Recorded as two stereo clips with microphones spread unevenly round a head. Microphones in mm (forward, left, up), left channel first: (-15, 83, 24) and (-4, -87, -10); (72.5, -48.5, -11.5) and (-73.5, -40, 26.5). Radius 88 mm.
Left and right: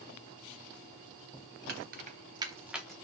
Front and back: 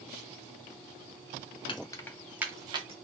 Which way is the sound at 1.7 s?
65° right.